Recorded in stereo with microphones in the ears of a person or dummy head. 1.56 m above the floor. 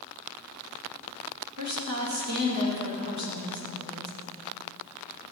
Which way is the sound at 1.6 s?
55° right (ahead or behind).